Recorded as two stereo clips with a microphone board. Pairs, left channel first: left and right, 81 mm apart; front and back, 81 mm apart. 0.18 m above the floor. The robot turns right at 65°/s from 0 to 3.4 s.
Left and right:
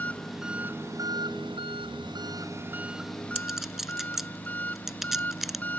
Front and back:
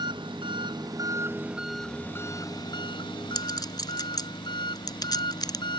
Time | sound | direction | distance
0.0 | an engine running | 160° left | ?
3.4 | a clink | 10° right | ?